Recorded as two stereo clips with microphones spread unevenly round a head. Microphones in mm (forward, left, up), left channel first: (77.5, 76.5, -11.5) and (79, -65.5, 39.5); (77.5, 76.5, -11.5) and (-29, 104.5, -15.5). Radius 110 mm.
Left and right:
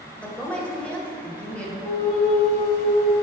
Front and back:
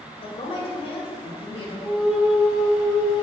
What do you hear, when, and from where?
0.2 s a woman speaking: 20° left, 1.5 m
1.8 s a flute: 85° left, 1.3 m